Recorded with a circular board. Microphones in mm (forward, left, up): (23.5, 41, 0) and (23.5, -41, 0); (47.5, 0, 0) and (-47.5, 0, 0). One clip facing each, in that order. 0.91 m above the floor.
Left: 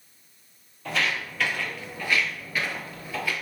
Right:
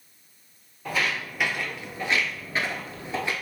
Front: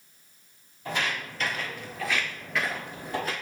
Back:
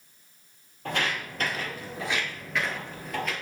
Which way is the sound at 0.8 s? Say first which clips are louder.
Even, back 1 dB; 170° right.